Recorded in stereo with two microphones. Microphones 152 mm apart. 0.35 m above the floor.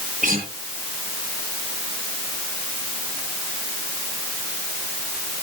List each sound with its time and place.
0.2 s a guitar: 65° right (ahead or behind), 8 m